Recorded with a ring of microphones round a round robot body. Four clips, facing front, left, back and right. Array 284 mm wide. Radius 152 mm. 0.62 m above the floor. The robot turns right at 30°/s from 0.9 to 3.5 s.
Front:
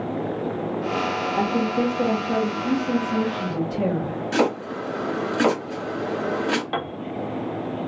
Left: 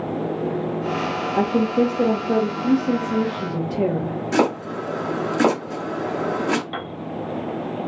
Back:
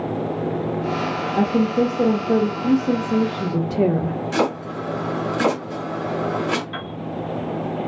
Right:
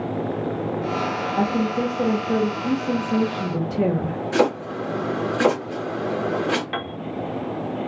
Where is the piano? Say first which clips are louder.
Right 1 dB, front 4 dB; 20° right, 0.6 m.